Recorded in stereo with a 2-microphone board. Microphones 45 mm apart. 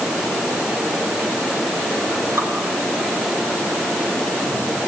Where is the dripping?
80° right, 5 m.